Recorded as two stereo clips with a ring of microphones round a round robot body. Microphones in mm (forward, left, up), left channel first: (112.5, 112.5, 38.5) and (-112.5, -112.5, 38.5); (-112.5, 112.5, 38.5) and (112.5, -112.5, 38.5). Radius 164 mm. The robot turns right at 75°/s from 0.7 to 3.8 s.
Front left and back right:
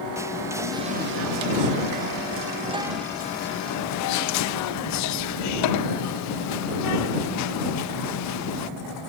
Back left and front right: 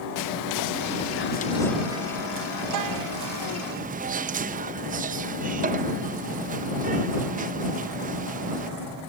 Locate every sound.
0.1 s whispering: 145° left; by 8.7 s 15° left